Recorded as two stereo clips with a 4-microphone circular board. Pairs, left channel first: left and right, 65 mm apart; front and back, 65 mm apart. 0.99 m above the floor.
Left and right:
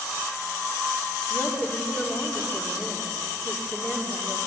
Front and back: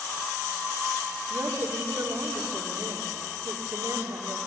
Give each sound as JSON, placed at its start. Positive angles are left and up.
{"t": 1.3, "sound": "a woman speaking", "azimuth_deg": 150, "distance_m": 3.0}